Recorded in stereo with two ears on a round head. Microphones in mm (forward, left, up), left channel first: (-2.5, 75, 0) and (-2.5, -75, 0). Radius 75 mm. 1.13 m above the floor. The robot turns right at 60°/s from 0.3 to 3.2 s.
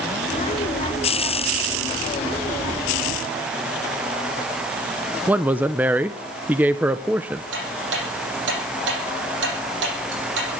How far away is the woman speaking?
About 0.6 m.